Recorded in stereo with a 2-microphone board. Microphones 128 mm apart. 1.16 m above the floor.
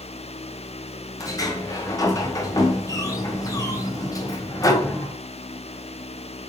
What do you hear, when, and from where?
1.2 s a sliding door: 30° left (ahead or behind), 0.5 m